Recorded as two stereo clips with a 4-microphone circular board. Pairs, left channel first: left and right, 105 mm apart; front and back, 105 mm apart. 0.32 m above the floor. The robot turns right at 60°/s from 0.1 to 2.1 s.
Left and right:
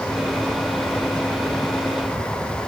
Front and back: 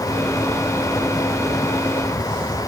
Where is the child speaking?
I don't hear a child speaking.